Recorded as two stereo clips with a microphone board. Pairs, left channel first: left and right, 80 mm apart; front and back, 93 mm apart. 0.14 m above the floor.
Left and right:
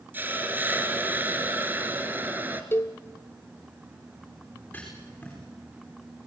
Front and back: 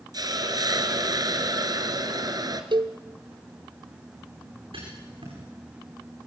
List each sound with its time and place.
0.1 s a hiss: 150° right, 1.8 m
2.7 s a cowbell: 150° left, 0.9 m
4.7 s writing: 160° left, 9.5 m